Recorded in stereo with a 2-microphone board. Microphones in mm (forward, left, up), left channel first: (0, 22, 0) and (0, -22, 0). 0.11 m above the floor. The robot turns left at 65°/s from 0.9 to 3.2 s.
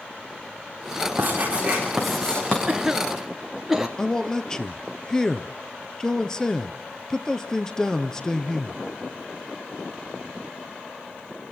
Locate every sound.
1.2 s writing: 125° right, 8.5 m; by 2.6 s 145° left, 8.5 m
2.7 s a cough: 20° right (ahead or behind), 1.1 m; by 3.9 s 5° right (ahead or behind), 1.1 m
4.0 s a man speaking: 15° left (ahead or behind), 1.9 m